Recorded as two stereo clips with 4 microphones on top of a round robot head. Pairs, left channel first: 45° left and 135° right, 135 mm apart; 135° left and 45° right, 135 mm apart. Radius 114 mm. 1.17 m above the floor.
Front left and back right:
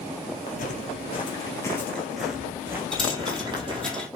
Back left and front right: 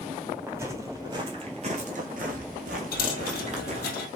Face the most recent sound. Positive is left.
turn(degrees=130)